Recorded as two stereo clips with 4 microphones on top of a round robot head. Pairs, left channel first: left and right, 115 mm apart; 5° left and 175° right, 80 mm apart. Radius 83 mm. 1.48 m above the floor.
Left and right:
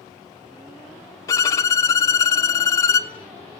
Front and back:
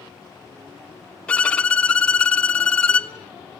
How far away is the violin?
About 0.5 m.